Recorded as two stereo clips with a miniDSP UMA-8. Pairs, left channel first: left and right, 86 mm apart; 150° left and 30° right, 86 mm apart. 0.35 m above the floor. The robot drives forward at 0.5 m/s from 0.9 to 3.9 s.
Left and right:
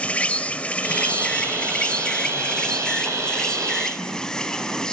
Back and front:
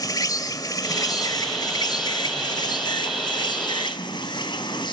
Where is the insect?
160° left, 1.6 m; by 4.9 s 170° left, 3 m.